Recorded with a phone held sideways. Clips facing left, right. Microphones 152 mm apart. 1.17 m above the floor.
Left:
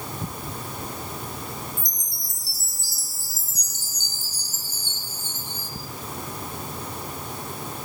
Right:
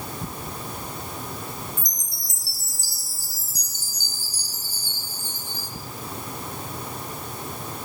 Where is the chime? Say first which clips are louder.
Even; 20° left (ahead or behind), 0.9 m.